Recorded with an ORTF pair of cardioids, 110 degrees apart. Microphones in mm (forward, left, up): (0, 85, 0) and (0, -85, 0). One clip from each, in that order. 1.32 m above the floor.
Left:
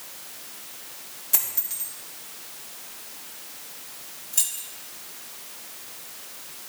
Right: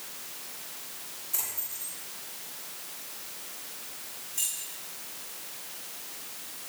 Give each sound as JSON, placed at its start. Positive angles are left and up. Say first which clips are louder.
{"t": 1.3, "sound": "a dropped coin", "louder": "left 6 dB", "azimuth_deg": 65, "distance_m": 2.5}
{"t": 4.3, "sound": "keys jangling", "louder": "left 5 dB", "azimuth_deg": 65, "distance_m": 2.0}